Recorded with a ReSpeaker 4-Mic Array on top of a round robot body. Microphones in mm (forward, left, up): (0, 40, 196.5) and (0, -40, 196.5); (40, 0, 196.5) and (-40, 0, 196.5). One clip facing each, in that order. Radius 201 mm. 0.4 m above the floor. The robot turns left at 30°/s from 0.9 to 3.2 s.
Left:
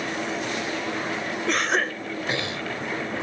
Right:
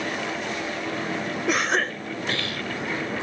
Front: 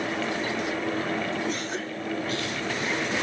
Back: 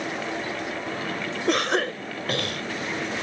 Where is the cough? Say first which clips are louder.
Even, back 7 dB; 175° right; by 2.6 s 150° left.